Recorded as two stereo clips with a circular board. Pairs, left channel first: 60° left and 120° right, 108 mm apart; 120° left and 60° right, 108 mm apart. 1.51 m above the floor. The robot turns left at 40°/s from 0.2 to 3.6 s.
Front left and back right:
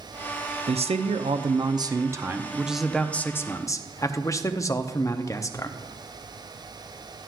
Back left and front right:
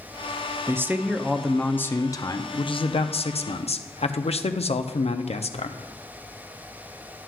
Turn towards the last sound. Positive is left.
turn(degrees=120)